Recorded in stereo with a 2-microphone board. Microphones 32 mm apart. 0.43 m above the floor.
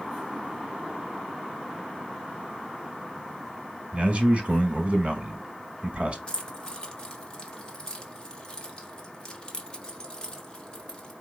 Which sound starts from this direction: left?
Keys jangling, at 6.3 s.